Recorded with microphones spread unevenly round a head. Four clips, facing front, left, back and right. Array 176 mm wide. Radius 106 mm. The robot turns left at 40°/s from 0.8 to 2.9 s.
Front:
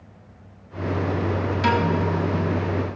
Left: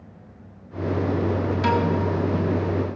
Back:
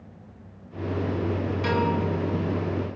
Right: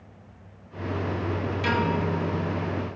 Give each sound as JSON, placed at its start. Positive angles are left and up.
{"t": 1.6, "sound": "a piano", "azimuth_deg": 30, "distance_m": 2.0}